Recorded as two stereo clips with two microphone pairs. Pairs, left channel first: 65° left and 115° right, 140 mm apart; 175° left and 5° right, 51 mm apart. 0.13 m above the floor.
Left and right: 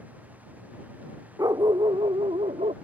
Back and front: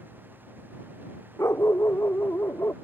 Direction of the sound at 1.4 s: Straight behind.